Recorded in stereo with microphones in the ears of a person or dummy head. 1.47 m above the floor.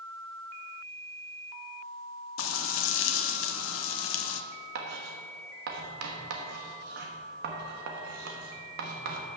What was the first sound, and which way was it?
Frying, 85° left.